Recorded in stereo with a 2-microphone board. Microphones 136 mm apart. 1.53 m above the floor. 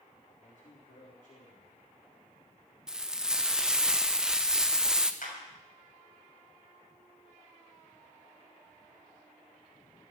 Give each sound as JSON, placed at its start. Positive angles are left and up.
{"t": 0.4, "sound": "a man speaking", "side_deg": 65, "distance_m": 4.0}
{"t": 2.9, "sound": "frying", "side_deg": -5, "distance_m": 0.9}
{"t": 5.2, "sound": "a clap", "side_deg": 85, "distance_m": 6.5}